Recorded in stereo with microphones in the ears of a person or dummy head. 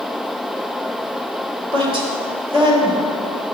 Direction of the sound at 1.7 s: 30° right (ahead or behind).